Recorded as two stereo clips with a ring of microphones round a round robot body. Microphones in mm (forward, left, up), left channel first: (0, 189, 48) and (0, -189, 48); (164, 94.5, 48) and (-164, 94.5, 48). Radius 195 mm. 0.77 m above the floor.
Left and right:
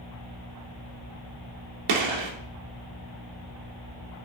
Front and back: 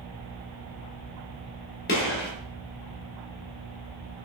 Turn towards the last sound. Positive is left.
turn(degrees=-70)